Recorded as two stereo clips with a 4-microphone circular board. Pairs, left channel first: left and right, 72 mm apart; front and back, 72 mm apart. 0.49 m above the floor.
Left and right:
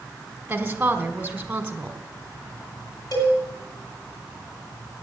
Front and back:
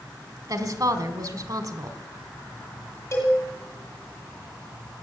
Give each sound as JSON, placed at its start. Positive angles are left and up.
{"t": 0.5, "sound": "a woman speaking", "azimuth_deg": -160, "distance_m": 1.8}
{"t": 3.1, "sound": "a cowbell", "azimuth_deg": 55, "distance_m": 9.0}